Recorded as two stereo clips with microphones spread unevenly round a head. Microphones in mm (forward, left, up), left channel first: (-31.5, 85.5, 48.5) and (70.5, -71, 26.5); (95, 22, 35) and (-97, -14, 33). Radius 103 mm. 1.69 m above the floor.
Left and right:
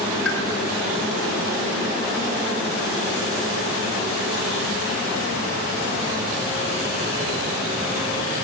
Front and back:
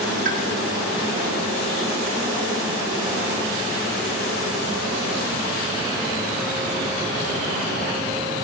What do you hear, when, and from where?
0.2 s a pop: 140° left, 6.5 m